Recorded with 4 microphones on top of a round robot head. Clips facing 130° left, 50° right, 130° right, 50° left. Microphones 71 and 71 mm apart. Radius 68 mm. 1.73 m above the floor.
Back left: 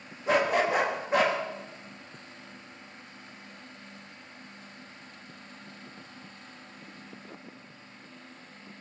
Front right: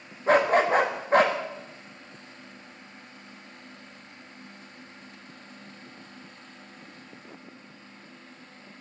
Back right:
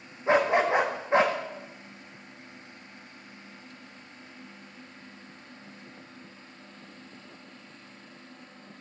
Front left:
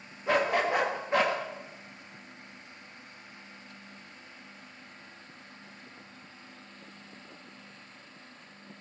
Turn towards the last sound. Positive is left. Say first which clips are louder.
# front right 4 dB, back right 4 dB
turn(degrees=-75)